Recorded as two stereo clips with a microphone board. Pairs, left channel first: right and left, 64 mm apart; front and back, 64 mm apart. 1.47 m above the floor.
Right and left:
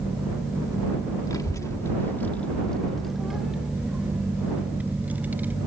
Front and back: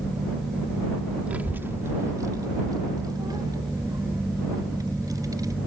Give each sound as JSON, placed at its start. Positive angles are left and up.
{"t": 1.3, "sound": "a child speaking", "azimuth_deg": -110}